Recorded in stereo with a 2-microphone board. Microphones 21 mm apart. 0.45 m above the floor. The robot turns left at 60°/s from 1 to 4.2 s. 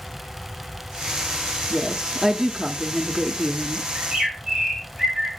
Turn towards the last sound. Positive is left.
turn(degrees=-45)  # may be behind; listen again after turning